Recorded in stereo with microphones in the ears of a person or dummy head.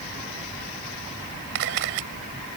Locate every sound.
1.6 s a camera shutter: 70° right (ahead or behind)